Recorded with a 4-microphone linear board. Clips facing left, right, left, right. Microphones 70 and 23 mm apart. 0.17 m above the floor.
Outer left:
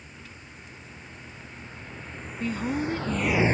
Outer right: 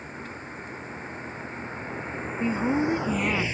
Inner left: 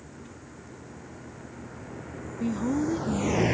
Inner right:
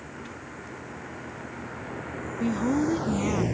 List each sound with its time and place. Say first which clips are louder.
0.0 s a vehicle: outer right 9 dB, inner right 6 dB; 40° right (ahead or behind); by 3.5 s 50° left (ahead or behind)
2.4 s a woman speaking: outer right 4 dB, inner right 2 dB; 20° right (ahead or behind)